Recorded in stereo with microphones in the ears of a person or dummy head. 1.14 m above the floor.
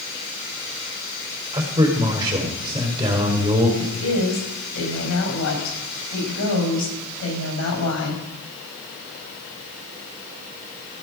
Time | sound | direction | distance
1.5 | a man speaking | 25° right (ahead or behind) | 4 m
3.8 | a woman speaking | 80° left | 6 m